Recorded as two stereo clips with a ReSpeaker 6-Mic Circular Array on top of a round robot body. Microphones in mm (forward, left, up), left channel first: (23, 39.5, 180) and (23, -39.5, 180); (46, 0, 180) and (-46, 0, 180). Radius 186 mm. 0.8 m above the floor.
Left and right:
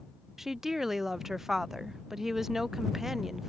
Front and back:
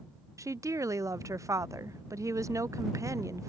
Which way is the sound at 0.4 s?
175° right.